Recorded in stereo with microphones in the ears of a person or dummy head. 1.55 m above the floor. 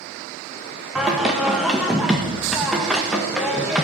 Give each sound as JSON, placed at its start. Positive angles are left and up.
{"t": 0.9, "sound": "singing", "side_deg": 0, "distance_m": 1.4}